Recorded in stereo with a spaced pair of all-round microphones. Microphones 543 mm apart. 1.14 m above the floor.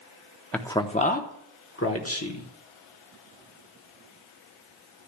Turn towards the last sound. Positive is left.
turn(degrees=30)  # may be behind; listen again after turning